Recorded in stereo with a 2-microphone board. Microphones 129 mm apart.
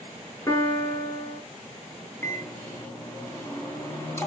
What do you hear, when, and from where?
0.5 s a piano: 25° left (ahead or behind), 2 m
2.2 s a microwave: 20° left (ahead or behind), 3 m